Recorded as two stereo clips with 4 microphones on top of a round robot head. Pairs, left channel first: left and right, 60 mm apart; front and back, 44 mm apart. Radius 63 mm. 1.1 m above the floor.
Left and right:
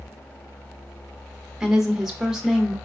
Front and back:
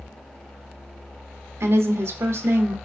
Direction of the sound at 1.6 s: 175° right.